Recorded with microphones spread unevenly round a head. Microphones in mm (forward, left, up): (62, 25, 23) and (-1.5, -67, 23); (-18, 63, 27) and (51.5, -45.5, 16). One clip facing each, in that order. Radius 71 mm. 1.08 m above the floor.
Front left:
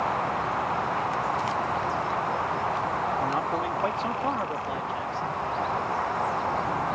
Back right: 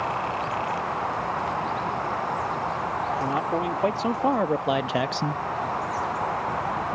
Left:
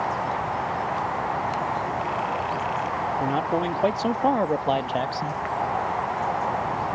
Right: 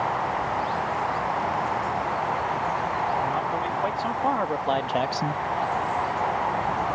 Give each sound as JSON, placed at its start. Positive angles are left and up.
{"t": 3.2, "sound": "a man speaking", "azimuth_deg": 165}